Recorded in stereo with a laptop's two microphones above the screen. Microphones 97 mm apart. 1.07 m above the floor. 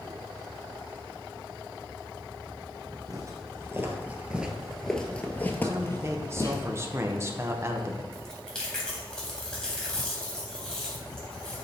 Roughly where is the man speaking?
Right.